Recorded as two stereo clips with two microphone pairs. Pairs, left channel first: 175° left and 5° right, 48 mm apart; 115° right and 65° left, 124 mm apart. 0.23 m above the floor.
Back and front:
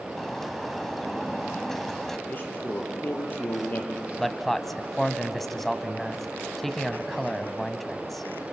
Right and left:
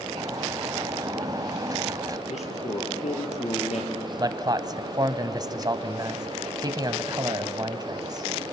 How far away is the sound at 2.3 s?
About 5 m.